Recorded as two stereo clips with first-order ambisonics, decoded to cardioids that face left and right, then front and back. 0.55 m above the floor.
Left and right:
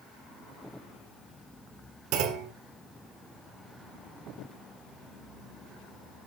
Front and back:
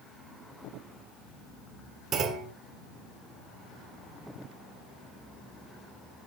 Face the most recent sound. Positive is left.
turn(degrees=-120)